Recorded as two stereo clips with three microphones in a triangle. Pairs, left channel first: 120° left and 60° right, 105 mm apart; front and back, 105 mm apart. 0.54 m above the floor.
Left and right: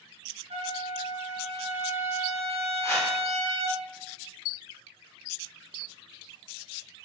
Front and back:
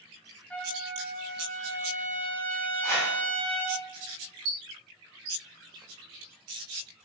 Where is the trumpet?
75° right, 0.6 m.